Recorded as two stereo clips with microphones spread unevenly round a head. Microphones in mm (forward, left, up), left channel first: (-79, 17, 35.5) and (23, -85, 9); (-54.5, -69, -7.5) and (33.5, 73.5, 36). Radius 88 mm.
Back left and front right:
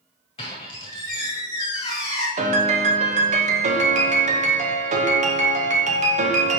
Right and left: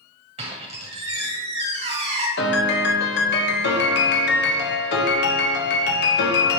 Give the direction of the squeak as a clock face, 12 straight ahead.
9 o'clock.